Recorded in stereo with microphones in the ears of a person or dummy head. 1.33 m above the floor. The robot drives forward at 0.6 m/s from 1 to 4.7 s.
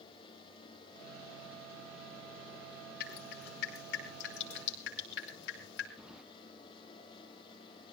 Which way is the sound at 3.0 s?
65° left (ahead or behind).